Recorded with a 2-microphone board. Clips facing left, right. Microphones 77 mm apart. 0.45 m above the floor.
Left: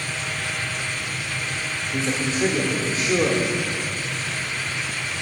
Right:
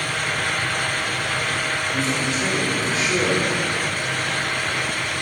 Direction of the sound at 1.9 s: 30° left (ahead or behind).